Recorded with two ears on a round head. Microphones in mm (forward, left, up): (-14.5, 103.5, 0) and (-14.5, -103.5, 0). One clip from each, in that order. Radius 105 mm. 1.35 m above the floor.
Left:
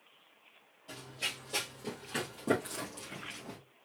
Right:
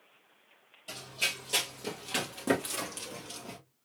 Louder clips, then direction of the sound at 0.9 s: Right 5 dB; 55° right (ahead or behind).